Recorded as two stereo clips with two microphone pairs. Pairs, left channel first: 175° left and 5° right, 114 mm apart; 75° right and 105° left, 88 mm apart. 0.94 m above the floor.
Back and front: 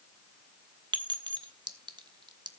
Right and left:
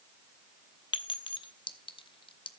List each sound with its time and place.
0.9 s a clink: 55° right, 1.0 m